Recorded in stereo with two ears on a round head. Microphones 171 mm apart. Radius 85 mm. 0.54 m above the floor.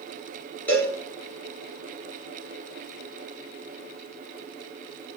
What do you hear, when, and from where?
0.7 s a cowbell: 10° left (ahead or behind), 2 m